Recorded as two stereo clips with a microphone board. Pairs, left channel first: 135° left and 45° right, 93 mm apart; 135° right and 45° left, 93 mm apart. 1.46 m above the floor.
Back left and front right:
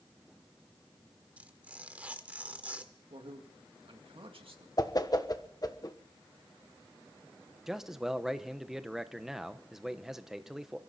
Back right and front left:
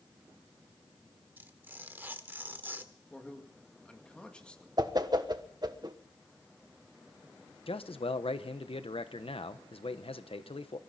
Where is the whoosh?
90° left, 1.3 m.